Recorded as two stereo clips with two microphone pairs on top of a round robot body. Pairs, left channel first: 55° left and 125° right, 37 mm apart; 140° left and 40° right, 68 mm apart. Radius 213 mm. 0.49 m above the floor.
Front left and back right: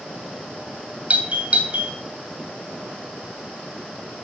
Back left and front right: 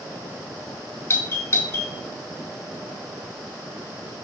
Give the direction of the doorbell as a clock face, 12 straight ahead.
6 o'clock.